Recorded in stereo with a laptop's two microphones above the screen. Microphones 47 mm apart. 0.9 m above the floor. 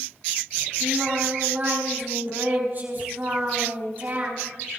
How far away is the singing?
About 3.5 m.